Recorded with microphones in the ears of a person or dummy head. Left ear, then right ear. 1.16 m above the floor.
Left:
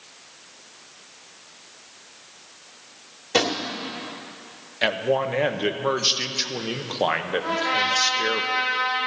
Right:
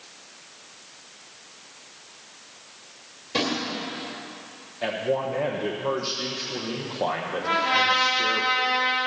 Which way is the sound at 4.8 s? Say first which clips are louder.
Left 4 dB; 60° left (ahead or behind).